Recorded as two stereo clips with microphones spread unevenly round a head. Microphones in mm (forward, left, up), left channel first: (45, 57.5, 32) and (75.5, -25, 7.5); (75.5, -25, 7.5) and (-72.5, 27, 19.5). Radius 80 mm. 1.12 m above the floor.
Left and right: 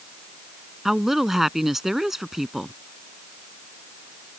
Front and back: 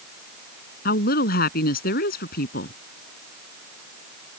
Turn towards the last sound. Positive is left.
turn(degrees=20)